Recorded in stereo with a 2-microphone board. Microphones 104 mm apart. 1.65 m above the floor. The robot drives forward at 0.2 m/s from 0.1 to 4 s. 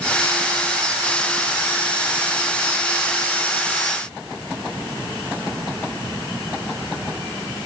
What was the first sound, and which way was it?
Only background noise.